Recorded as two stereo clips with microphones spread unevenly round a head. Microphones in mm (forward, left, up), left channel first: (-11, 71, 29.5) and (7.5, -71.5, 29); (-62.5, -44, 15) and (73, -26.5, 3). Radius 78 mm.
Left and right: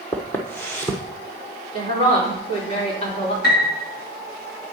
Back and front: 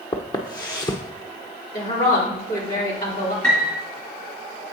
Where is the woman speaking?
145° left, 3 m.